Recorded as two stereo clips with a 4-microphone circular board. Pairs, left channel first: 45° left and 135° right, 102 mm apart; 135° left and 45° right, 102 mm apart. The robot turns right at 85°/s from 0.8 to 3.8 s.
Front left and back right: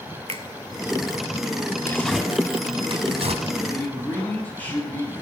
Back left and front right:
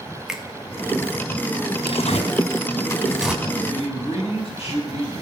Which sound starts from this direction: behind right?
A finger snap, at 0.3 s.